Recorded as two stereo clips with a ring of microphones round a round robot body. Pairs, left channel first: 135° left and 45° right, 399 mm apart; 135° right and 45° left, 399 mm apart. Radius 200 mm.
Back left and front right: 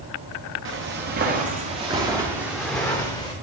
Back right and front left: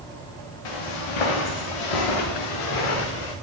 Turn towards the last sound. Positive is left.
turn(degrees=-145)